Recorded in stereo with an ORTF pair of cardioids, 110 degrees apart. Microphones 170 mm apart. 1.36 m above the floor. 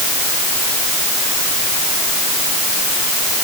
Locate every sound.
Only background noise.